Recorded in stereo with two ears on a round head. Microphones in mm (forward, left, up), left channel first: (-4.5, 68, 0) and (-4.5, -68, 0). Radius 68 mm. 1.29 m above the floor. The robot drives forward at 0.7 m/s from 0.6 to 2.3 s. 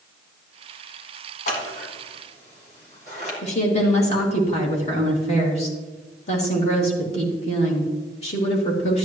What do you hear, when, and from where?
1.5 s scissors: 55° left (ahead or behind), 3 m; by 3.3 s 45° left (ahead or behind), 3.5 m
3.4 s a woman speaking: 45° left (ahead or behind), 2.5 m